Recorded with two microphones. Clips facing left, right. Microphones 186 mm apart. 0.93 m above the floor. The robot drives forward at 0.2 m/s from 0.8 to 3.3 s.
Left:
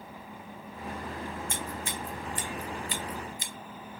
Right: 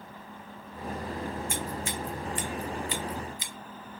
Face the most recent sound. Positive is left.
turn(degrees=50)  # may be behind; listen again after turning